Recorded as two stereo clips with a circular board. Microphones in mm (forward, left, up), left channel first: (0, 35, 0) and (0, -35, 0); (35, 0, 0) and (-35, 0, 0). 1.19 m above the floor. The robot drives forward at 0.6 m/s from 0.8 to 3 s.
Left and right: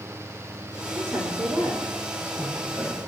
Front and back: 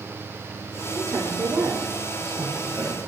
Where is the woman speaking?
140° right, 5.5 m; by 3.0 s 145° right, 6.5 m.